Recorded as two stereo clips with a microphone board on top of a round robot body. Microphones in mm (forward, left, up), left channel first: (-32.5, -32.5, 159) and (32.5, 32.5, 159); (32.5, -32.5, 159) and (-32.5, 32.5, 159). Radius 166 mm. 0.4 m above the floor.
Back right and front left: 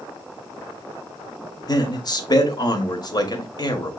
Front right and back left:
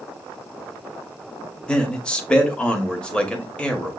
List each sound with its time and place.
1.7 s a man speaking: 120° right, 1.2 m